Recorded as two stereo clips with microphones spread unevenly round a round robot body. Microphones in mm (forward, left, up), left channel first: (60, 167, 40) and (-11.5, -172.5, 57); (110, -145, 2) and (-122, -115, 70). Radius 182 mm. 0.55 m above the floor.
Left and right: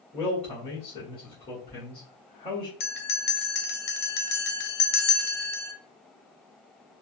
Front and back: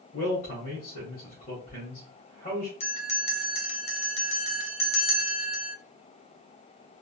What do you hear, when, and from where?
0.1 s a man speaking: 10° left, 1.4 m
2.8 s a bell: 30° left, 0.6 m